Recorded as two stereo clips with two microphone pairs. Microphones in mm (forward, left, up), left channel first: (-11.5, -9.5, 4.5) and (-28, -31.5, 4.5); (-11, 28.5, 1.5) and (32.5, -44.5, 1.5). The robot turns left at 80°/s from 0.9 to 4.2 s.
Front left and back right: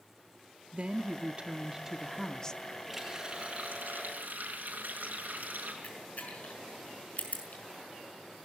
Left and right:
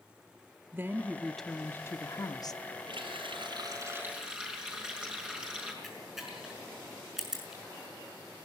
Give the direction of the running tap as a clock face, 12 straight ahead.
1 o'clock.